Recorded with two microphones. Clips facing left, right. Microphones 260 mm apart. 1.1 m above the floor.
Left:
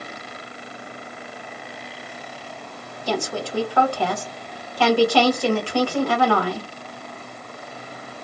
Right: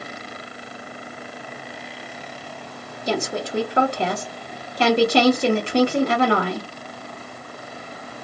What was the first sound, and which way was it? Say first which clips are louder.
A woman speaking: right 1 dB; 20° right (ahead or behind).